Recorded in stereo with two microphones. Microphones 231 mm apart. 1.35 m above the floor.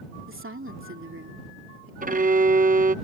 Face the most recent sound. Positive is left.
turn(degrees=-35)  # may be behind; listen again after turning